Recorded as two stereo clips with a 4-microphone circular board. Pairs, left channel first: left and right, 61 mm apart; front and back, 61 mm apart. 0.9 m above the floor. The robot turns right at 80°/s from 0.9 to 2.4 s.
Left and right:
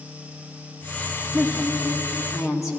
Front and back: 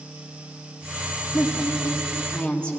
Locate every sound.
1.3 s a woman speaking: 15° right, 1.8 m; by 2.8 s 70° left, 1.8 m